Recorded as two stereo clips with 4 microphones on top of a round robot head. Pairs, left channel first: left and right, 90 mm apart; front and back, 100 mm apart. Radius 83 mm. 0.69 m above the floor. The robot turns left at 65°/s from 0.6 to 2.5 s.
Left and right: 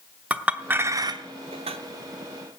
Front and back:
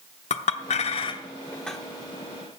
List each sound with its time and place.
0.3 s a clink: 15° right, 0.8 m; by 1.8 s 90° right, 0.8 m